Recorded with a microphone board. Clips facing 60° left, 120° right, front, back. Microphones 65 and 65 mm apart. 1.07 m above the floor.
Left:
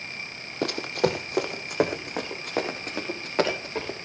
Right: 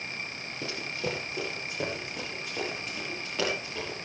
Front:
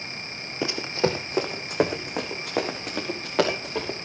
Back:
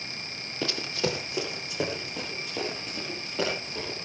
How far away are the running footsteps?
About 2 m.